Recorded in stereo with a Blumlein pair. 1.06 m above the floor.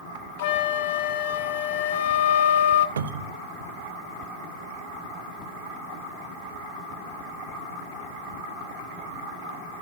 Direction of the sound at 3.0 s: 65° right.